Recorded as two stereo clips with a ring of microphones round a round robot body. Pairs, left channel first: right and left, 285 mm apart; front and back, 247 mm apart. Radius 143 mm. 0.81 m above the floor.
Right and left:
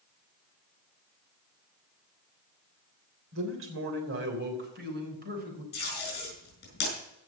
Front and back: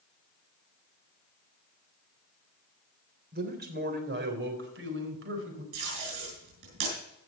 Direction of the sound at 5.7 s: 145° right.